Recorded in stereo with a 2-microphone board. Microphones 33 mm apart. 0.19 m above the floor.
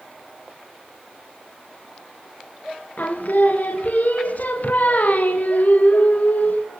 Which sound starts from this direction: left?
Singing, at 3.0 s.